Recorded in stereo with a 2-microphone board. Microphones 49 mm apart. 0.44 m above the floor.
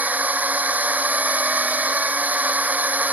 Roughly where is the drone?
Right.